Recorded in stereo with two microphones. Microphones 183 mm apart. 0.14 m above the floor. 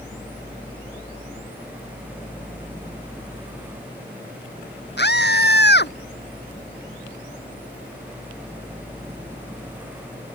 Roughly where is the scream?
Left.